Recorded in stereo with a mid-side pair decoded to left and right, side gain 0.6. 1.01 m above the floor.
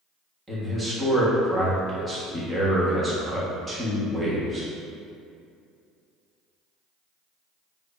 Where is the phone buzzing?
No phone buzzing in this recording.